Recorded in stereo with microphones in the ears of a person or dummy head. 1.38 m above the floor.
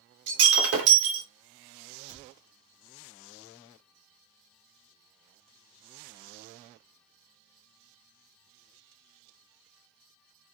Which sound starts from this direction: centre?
A cupboard door, at 2.1 s.